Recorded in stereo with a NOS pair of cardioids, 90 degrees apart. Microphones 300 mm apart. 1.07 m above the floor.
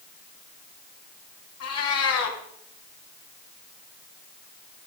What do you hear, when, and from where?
1.6 s a cat meowing: 55° left, 2.5 m